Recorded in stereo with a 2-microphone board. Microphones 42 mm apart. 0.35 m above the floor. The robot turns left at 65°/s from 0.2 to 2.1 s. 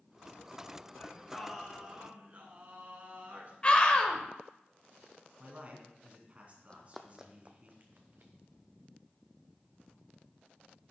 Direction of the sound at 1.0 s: 30° left.